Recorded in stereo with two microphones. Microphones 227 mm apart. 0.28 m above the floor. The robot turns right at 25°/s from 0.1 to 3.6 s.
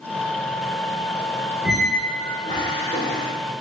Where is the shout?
No shout in this recording.